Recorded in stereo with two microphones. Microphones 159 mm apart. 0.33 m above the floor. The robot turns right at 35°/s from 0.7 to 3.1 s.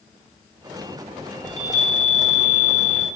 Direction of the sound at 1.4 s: 120° left.